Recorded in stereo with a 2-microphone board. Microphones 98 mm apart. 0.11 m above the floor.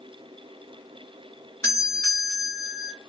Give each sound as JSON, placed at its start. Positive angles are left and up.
{"t": 1.6, "sound": "a doorbell", "side_deg": 25, "distance_m": 1.8}